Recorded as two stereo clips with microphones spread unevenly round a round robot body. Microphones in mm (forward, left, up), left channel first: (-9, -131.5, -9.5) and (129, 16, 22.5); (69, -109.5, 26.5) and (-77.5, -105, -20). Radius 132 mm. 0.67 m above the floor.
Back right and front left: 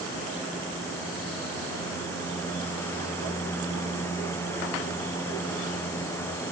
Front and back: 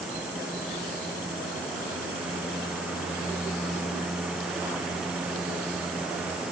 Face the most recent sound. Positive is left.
No sound to turn to.